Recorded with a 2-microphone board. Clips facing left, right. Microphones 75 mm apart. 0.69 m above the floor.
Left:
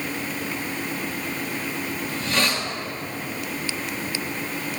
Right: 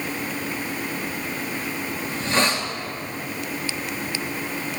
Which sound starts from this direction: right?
A hiss, at 2.1 s.